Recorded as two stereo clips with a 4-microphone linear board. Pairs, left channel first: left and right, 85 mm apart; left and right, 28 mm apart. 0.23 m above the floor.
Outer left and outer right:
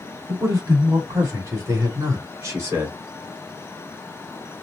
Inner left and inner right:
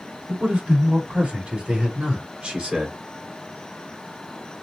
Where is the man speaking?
35° right (ahead or behind), 1.5 m; by 3.0 s 30° right (ahead or behind), 2.5 m.